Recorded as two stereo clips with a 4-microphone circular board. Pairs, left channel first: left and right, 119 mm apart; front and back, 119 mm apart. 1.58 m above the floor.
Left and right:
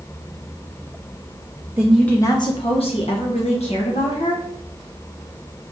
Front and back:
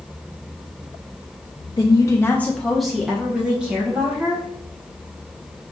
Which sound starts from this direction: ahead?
A woman speaking, at 1.8 s.